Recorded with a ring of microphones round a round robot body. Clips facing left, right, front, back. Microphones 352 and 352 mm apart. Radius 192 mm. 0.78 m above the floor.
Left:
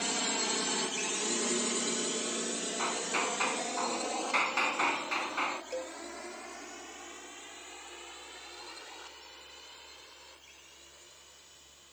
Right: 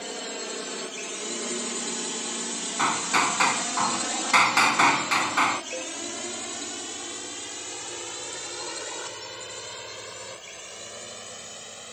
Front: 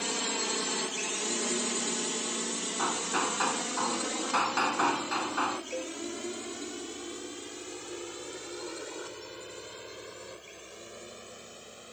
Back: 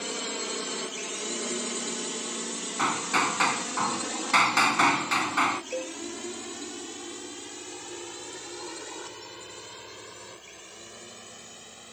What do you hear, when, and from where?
0.0 s a drone: 75° left; by 11.9 s 100° right
2.8 s hammering: 125° right
5.7 s a cowbell: 145° left